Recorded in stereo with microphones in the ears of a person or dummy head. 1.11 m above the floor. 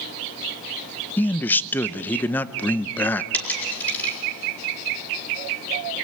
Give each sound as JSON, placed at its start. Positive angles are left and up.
{"t": 1.2, "sound": "a man speaking", "side_deg": 10, "distance_m": 0.5}
{"t": 3.3, "sound": "a dropped coin", "side_deg": 10, "distance_m": 4.5}